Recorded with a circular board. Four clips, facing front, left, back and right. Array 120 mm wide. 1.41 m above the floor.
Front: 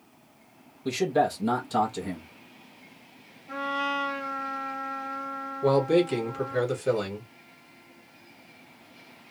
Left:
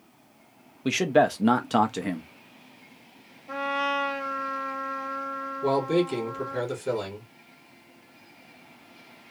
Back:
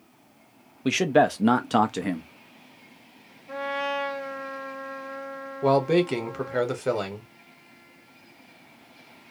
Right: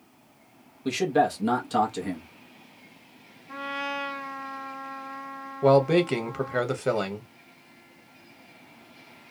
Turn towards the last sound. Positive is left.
turn(degrees=-125)